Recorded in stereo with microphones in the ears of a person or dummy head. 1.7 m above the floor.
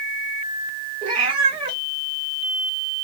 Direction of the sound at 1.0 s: 30° right (ahead or behind).